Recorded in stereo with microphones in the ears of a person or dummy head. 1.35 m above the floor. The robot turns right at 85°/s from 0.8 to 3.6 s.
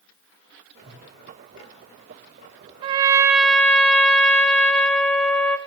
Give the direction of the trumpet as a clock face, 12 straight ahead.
2 o'clock.